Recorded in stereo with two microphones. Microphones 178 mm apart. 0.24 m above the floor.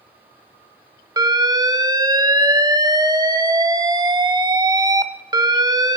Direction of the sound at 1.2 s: 20° right (ahead or behind).